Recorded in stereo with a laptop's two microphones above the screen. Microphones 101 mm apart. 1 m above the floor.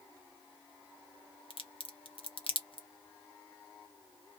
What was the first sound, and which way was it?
A crack, 65° left (ahead or behind).